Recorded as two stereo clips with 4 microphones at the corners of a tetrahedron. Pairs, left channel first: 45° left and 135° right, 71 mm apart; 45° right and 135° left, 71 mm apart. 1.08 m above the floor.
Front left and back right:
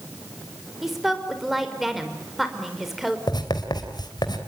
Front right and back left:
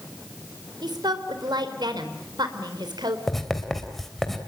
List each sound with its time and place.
0.8 s a woman speaking: 140° left, 4 m
3.3 s writing: 40° left, 3 m